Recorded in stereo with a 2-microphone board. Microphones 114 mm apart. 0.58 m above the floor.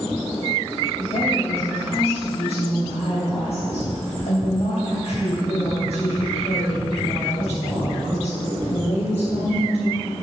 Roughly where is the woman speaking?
Left.